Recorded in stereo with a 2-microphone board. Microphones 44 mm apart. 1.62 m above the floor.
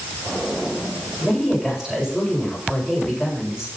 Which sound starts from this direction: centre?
A woman speaking, at 1.2 s.